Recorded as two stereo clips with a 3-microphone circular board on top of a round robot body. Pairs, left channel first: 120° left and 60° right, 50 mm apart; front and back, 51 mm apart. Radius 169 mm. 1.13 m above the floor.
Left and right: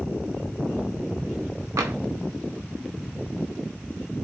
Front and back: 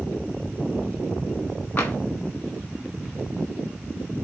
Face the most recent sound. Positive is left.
turn(degrees=-55)